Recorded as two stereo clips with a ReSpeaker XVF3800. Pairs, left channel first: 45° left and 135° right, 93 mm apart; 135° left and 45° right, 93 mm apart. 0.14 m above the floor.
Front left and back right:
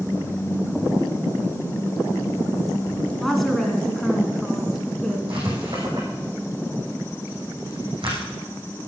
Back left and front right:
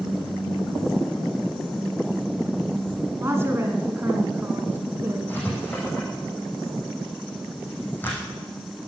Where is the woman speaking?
45° right, 1.6 m.